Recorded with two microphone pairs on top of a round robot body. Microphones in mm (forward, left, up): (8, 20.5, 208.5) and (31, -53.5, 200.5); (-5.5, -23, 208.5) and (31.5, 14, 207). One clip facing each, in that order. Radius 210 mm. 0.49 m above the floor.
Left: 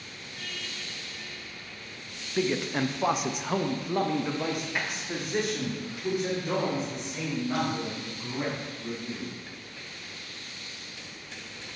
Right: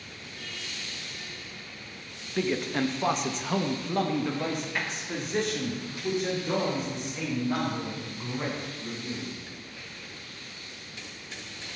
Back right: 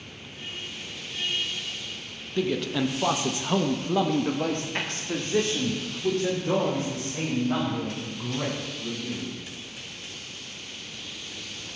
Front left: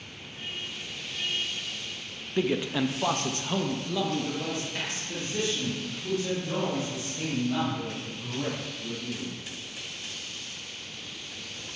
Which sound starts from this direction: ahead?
A man speaking, at 2.4 s.